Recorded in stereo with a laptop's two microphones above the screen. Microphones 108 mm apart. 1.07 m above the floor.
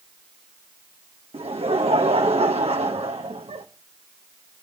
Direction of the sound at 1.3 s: 65° right (ahead or behind).